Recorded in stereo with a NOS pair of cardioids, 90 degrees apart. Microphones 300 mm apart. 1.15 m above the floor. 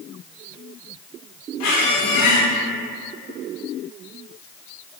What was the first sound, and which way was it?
A squeak, 65° left.